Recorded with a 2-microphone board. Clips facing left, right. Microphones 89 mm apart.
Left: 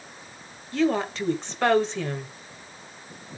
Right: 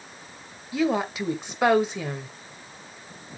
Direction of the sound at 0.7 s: 10° right (ahead or behind).